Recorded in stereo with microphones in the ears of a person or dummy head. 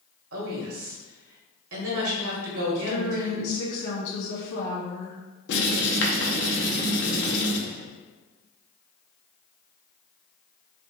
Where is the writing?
55° left (ahead or behind), 0.8 m.